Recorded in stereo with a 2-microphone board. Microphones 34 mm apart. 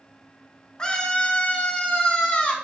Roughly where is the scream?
Left.